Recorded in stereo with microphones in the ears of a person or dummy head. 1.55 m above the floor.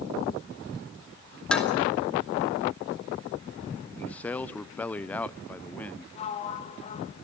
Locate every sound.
1.5 s dishes clattering: 5° left (ahead or behind), 2.5 m
4.0 s a man speaking: 5° left (ahead or behind), 0.5 m
6.2 s a sliding door: 30° left (ahead or behind), 1.4 m